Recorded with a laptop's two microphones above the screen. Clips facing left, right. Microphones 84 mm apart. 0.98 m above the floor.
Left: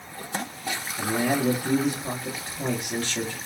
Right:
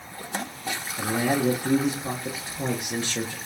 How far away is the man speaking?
About 0.7 m.